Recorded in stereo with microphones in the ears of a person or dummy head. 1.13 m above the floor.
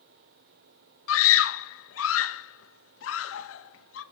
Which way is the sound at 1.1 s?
65° left (ahead or behind).